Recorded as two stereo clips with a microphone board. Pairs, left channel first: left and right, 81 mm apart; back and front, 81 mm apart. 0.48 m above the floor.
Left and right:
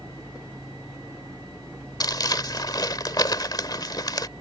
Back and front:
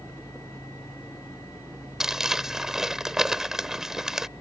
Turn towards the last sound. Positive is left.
turn(degrees=80)